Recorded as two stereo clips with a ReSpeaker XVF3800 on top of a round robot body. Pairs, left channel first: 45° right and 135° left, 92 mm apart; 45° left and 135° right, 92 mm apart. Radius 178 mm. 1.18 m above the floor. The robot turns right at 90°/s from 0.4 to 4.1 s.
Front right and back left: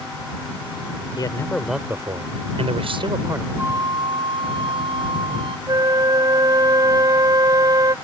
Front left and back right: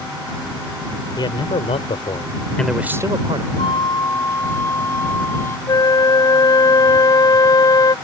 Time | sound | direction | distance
1.2 | a man speaking | straight ahead | ?
3.6 | a flute | 65° left | ?
5.7 | a flute | 90° left | ?